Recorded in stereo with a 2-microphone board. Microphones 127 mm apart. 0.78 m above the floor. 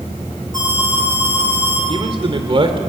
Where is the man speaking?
45° right (ahead or behind), 2.5 m.